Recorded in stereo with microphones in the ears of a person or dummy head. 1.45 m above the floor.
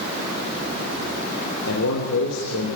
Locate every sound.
1.7 s a man speaking: 85° left, 6 m